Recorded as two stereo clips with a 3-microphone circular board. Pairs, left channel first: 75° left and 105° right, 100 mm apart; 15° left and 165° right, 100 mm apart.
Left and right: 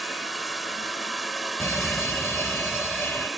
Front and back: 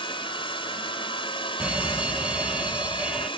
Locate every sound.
0.0 s running water: 15° right
1.6 s a fire alarm: 125° left